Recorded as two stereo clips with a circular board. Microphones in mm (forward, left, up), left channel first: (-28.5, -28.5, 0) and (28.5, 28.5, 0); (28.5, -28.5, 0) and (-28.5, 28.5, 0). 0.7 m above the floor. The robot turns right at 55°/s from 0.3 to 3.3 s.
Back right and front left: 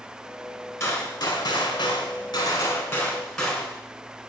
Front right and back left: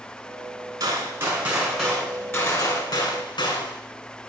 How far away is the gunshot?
About 1.6 m.